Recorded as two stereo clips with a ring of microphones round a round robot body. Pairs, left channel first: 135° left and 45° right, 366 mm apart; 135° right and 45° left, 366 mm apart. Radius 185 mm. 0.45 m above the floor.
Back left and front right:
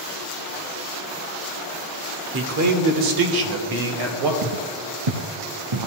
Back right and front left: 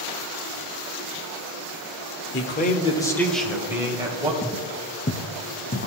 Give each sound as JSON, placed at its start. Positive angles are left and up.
{"t": 2.3, "sound": "a man speaking", "azimuth_deg": -90, "distance_m": 1.1}
{"t": 4.4, "sound": "footsteps", "azimuth_deg": -50, "distance_m": 0.6}